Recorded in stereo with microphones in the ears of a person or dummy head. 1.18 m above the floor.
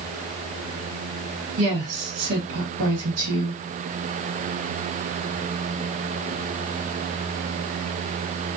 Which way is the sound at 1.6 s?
75° right (ahead or behind).